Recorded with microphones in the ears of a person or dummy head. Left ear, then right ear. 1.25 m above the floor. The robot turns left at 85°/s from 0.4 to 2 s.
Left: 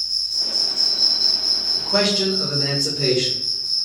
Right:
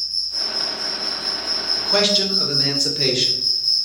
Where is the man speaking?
30° right (ahead or behind), 1.3 m; by 3.3 s 50° right (ahead or behind), 1.3 m.